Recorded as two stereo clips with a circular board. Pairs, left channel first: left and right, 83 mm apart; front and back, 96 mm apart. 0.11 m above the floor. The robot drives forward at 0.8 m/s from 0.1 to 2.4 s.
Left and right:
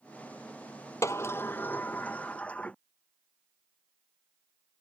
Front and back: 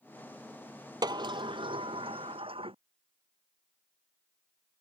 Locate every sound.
1.0 s a sliding door: 140° left; by 2.8 s 165° left